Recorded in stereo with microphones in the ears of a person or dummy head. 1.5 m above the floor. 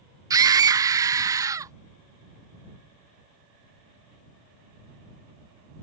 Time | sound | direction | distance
0.3 | a scream | 20° right (ahead or behind) | ?